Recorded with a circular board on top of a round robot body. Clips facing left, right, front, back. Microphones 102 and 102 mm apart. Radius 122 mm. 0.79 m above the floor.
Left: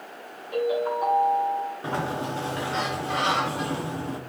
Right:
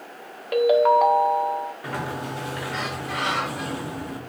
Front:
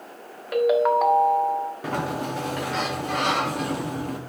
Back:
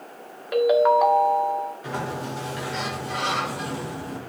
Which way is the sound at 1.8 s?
30° left.